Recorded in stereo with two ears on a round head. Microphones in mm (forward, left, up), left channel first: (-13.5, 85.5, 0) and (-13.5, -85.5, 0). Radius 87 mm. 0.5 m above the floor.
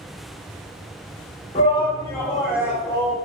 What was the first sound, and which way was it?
A shout, 30° left (ahead or behind).